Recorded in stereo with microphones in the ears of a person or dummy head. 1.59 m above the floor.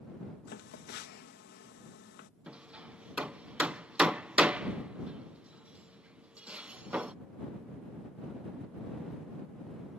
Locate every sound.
0.5 s a phone buzzing: 65° left (ahead or behind)
2.5 s hammering: 10° right (ahead or behind)